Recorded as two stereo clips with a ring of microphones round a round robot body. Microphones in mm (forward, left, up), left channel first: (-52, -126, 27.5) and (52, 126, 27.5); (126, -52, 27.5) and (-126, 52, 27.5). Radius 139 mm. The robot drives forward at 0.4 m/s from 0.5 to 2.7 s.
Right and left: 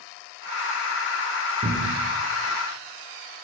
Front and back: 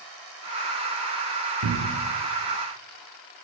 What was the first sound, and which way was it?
A cupboard door, 135° left.